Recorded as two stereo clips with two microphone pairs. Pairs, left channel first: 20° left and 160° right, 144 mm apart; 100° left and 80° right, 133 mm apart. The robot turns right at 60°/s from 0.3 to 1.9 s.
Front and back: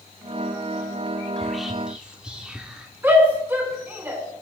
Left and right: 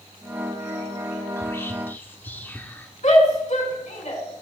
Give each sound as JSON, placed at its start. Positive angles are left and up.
{"t": 1.4, "sound": "whispering", "azimuth_deg": 105, "distance_m": 1.0}
{"t": 3.0, "sound": "a shout", "azimuth_deg": 130, "distance_m": 3.5}